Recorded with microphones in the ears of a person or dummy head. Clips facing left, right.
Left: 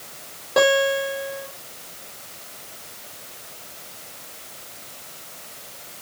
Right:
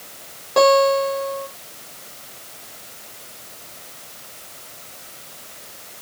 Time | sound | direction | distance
0.6 | a guitar | 10° left (ahead or behind) | 5 m